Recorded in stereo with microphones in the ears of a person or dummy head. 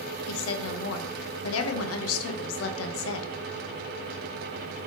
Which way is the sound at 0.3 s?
80° left.